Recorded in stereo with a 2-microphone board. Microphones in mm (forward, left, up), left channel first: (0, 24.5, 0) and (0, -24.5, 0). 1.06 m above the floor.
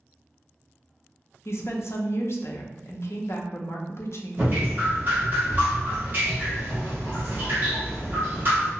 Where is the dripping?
35° right (ahead or behind), 1.2 m.